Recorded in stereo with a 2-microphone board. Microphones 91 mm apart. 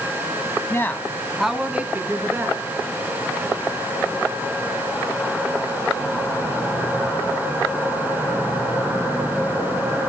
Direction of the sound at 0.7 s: 30° left (ahead or behind).